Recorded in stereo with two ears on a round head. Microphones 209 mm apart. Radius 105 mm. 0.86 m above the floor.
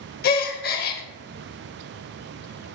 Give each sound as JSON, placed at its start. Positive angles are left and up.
{"t": 0.2, "sound": "a gasp", "side_deg": 40, "distance_m": 0.7}